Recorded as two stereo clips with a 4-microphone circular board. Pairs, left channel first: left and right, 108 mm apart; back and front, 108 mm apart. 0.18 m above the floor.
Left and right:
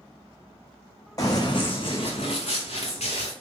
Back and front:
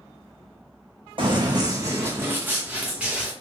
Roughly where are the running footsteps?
Ahead left.